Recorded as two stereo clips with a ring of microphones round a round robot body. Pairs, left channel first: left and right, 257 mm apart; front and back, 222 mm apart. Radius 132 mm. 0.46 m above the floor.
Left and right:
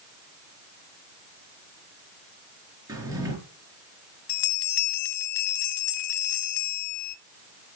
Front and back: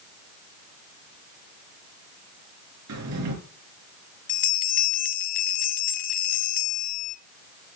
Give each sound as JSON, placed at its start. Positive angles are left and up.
{"t": 2.9, "sound": "a drawer", "azimuth_deg": -165, "distance_m": 4.5}
{"t": 4.3, "sound": "a bell", "azimuth_deg": 55, "distance_m": 1.0}